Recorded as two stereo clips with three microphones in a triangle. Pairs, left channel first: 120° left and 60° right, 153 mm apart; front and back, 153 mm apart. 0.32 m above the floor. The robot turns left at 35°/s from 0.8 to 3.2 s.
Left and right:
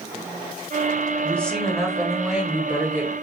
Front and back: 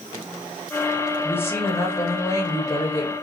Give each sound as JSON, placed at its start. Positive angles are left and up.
{"t": 1.2, "sound": "a woman speaking", "azimuth_deg": 55, "distance_m": 1.0}